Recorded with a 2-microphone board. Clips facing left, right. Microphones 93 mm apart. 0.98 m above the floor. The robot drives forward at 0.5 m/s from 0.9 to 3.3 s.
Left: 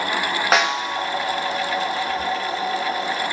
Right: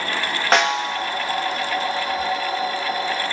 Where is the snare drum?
Centre (ahead or behind), 0.9 m.